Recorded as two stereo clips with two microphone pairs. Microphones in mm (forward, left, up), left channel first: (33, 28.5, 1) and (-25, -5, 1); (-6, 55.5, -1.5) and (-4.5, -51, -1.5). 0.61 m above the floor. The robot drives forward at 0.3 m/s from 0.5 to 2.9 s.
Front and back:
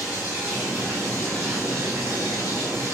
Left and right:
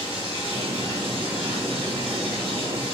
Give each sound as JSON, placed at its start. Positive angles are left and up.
{"t": 0.0, "sound": "running water", "azimuth_deg": -80, "distance_m": 1.8}